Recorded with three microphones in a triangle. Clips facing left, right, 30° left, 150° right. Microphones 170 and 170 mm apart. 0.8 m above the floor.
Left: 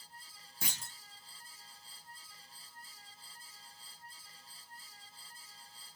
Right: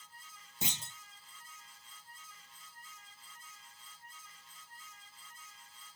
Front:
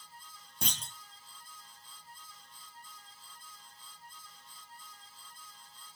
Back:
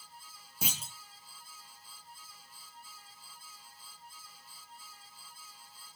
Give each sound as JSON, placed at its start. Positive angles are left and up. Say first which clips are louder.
{"t": 0.6, "sound": "a clunk", "louder": "right 4 dB, back 1 dB", "azimuth_deg": -80, "distance_m": 0.6}